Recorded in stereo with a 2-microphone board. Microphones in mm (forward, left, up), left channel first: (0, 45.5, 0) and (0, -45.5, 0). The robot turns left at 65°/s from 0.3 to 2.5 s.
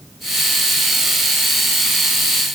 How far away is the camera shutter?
No camera shutter in this recording.